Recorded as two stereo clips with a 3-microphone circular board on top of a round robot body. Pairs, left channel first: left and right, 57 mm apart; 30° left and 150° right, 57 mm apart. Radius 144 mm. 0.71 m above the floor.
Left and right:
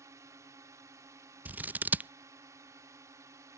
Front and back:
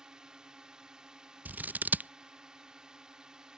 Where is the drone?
75° right.